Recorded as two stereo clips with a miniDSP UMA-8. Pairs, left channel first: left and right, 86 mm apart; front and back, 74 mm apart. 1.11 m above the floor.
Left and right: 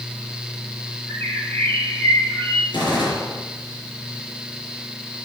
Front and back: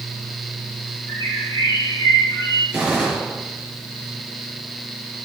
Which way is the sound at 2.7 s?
105° left.